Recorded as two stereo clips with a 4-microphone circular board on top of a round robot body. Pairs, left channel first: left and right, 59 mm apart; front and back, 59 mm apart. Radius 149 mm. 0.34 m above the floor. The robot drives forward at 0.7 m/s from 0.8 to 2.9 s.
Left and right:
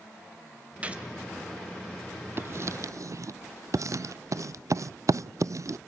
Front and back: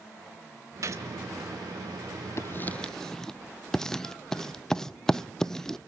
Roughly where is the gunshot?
Behind right.